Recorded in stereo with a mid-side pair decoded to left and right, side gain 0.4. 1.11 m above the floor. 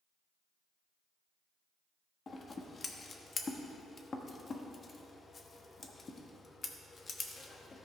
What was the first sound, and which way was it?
Scissors, 40° left.